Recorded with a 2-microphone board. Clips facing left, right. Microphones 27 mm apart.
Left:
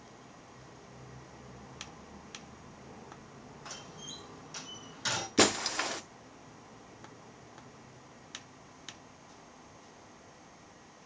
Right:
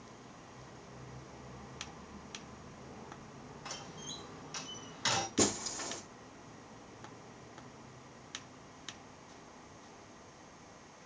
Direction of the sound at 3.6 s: 25° right (ahead or behind).